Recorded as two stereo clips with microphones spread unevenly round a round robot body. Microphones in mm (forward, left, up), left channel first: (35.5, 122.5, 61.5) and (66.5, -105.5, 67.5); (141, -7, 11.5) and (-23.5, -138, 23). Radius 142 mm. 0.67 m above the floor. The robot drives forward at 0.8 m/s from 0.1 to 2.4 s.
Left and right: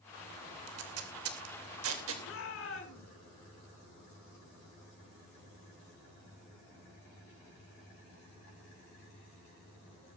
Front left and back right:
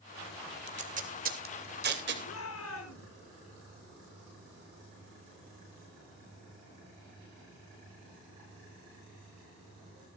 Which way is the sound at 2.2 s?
70° left.